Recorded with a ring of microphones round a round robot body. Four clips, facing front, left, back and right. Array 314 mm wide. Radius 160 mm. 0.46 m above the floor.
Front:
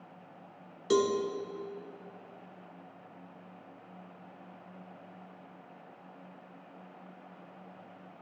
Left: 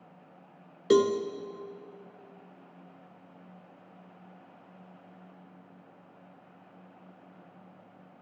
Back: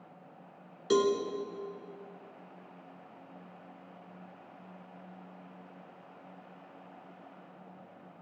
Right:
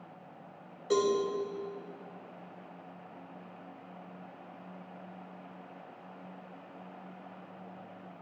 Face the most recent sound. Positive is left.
turn(degrees=95)